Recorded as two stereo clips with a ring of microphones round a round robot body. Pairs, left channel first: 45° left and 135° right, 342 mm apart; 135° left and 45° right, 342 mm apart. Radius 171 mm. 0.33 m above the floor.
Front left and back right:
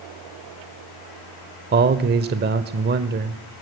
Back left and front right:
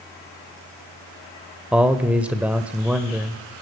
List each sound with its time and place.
1.7 s a man speaking: 130° right, 0.9 m